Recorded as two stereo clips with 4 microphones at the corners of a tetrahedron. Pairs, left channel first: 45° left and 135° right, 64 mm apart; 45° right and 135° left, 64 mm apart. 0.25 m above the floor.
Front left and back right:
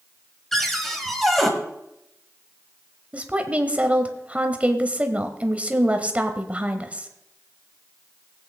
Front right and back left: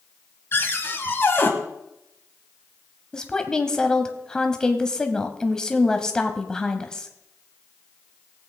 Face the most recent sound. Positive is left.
turn(degrees=-105)